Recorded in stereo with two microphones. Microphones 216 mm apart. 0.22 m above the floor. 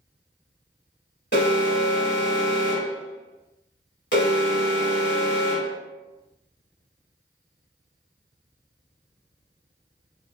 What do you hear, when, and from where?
1.3 s an alarm: 55° left (ahead or behind), 1.3 m